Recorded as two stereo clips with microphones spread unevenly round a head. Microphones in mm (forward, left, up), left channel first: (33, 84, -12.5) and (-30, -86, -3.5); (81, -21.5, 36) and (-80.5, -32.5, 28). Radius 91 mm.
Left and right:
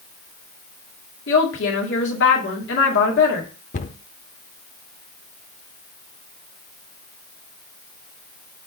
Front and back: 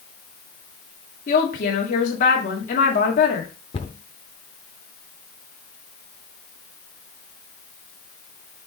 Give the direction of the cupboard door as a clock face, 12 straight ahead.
10 o'clock.